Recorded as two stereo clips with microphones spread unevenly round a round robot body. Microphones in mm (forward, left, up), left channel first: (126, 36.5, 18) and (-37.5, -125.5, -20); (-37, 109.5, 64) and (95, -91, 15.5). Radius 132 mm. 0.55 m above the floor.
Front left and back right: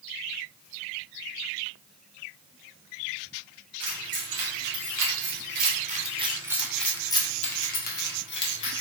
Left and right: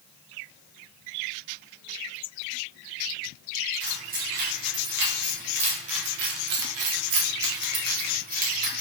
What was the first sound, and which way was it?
Keys jangling, 115° right.